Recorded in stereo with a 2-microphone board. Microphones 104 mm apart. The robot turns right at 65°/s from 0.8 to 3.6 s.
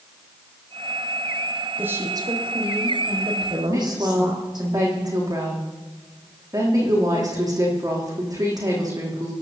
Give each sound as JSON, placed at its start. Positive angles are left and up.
{"t": 1.8, "sound": "a woman speaking", "azimuth_deg": -165, "distance_m": 4.0}
{"t": 3.7, "sound": "a woman speaking", "side_deg": -35, "distance_m": 5.5}